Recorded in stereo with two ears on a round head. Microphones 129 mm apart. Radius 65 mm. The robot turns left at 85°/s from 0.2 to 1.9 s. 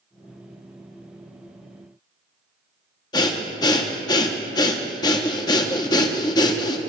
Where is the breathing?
30° left (ahead or behind), 0.7 m.